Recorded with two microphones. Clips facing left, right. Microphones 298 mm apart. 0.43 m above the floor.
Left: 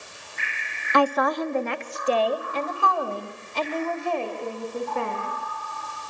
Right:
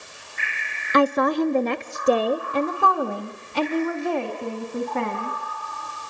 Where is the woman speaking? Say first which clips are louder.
Right 3 dB; 20° right (ahead or behind), 0.8 m; by 5.3 s 75° right (ahead or behind), 3 m.